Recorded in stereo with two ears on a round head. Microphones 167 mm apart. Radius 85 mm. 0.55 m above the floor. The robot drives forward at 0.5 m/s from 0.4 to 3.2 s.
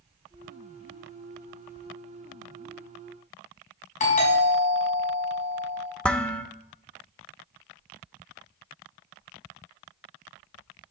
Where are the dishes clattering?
5° left (ahead or behind), 0.9 m.